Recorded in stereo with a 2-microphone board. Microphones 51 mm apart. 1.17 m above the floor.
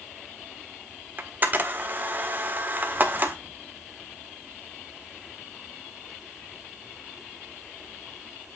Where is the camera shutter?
40° right (ahead or behind), 1.4 m.